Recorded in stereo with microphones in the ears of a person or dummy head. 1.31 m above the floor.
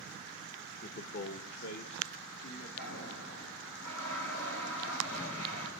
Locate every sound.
0.8 s a man speaking: 45° left (ahead or behind), 1.1 m; by 2.7 s 75° left (ahead or behind), 3 m
2.8 s a toilet flushing: 85° left, 8 m